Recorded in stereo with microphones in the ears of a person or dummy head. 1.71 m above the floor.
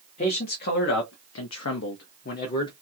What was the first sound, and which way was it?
A man speaking, 35° left (ahead or behind).